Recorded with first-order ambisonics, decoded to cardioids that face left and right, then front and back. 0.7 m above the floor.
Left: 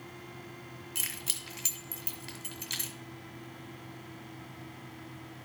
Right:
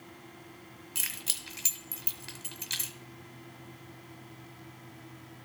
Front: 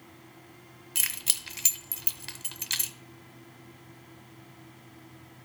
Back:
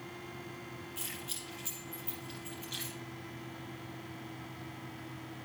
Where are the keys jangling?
5° right, 1.4 m.